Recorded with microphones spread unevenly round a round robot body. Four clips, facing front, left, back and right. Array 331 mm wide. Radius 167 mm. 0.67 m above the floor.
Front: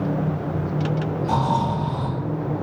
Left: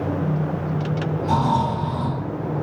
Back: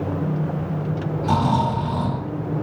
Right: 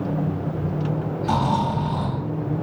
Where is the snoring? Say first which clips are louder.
Left 1 dB, back 2 dB; 145° right, 1.7 m.